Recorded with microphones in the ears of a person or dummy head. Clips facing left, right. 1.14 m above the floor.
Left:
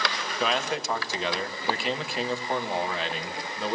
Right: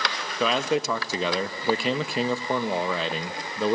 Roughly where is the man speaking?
Right.